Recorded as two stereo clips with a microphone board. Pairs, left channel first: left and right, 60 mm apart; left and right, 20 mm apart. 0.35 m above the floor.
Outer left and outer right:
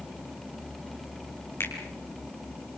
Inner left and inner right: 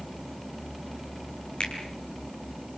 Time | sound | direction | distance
1.6 | a finger snap | 50° left (ahead or behind) | 6 m